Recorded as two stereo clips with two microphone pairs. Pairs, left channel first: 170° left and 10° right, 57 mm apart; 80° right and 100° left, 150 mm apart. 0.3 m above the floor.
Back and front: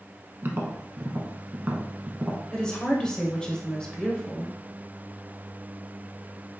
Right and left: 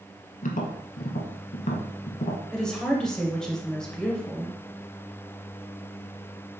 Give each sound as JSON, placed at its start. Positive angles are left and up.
{"t": 0.4, "sound": "tapping", "azimuth_deg": -65, "distance_m": 0.7}
{"t": 2.5, "sound": "a woman speaking", "azimuth_deg": -155, "distance_m": 0.9}